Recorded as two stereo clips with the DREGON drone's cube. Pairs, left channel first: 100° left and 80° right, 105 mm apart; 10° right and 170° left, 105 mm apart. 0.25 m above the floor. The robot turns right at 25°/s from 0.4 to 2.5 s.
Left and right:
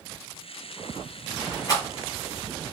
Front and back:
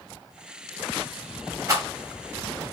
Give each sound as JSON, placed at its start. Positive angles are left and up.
{"t": 1.7, "sound": "a rattle", "azimuth_deg": 130, "distance_m": 1.6}